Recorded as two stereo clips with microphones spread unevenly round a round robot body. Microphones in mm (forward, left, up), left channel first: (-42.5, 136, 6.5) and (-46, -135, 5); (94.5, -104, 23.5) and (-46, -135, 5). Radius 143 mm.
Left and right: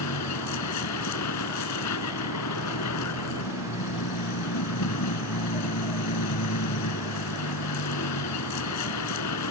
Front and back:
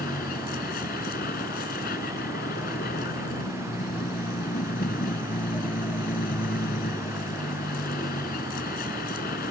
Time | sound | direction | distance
0.0 | a vehicle | 55° left | ?